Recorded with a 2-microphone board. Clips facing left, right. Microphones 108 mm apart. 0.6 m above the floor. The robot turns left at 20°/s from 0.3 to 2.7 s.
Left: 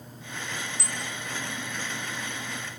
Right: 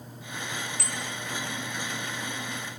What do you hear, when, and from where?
0.8 s a bicycle bell: 55° right (ahead or behind), 8.5 m; by 1.0 s 60° right (ahead or behind), 8.5 m